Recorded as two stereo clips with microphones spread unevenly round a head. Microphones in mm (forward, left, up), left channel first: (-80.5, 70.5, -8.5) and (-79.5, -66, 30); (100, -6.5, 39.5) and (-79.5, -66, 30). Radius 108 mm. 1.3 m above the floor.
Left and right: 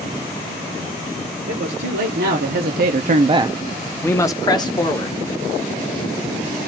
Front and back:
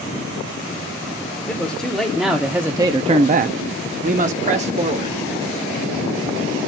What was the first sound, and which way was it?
A man speaking, 65° right.